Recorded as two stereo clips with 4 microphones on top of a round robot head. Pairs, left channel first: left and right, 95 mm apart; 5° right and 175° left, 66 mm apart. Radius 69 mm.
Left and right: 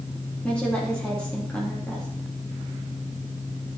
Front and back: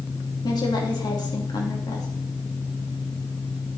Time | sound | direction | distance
0.4 | a woman speaking | 10° left | 3 m